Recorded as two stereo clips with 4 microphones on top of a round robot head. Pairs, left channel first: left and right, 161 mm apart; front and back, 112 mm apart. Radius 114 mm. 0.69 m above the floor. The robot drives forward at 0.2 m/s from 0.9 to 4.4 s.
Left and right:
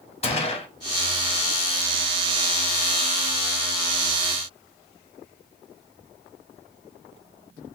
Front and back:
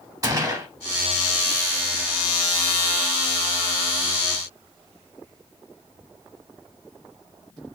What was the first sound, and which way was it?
A gunshot, 130° left.